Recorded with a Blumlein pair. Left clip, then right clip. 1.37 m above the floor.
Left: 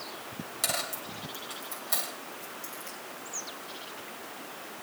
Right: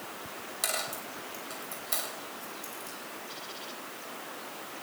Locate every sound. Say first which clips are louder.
0.6 s a dropped coin: left 1 dB; 5° left, 3 m